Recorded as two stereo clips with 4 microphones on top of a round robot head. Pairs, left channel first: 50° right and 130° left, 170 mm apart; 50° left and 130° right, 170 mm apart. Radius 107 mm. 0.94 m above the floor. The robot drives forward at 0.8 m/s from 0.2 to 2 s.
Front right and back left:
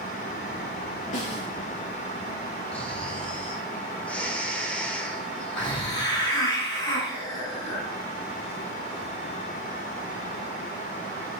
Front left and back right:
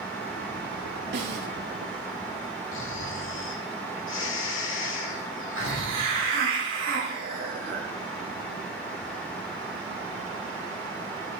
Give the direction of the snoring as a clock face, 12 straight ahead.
11 o'clock.